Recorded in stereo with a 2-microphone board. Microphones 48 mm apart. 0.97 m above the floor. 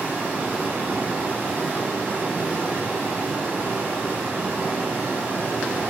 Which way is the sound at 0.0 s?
30° right (ahead or behind).